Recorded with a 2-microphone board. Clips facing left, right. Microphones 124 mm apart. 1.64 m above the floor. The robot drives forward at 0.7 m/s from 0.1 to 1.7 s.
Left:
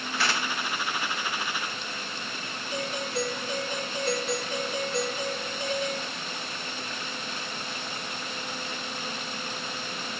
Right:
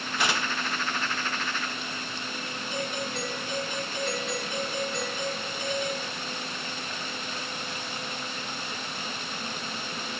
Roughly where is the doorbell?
Left.